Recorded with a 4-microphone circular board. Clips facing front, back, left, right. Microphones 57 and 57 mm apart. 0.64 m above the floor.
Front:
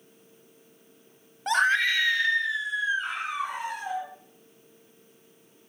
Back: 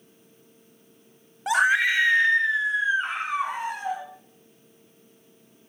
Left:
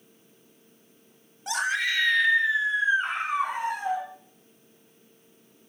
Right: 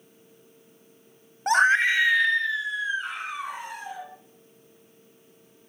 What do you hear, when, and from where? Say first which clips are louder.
1.5 s a scream: back 2 dB, right 8 dB; 95° right, 0.7 m; by 4.0 s 120° left, 1.4 m